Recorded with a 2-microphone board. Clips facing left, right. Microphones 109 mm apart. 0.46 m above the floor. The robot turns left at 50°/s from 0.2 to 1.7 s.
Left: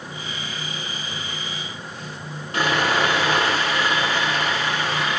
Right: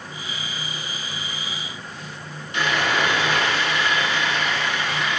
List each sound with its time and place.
2.5 s sawing: 40° left (ahead or behind), 6.5 m